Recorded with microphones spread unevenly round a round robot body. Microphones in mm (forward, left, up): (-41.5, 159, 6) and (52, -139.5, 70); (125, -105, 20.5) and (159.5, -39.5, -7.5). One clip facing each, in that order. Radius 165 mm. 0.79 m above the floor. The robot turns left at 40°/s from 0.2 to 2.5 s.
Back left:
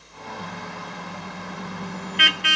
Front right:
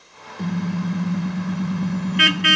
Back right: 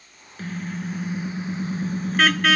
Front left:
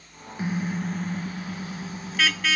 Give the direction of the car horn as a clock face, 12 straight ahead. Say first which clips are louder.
Front right 15 dB, front left 3 dB; 12 o'clock.